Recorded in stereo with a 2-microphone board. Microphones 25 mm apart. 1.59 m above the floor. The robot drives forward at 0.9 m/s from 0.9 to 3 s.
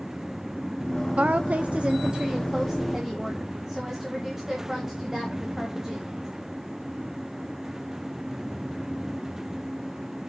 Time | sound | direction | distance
1.2 | a woman speaking | 55° right (ahead or behind) | 0.6 m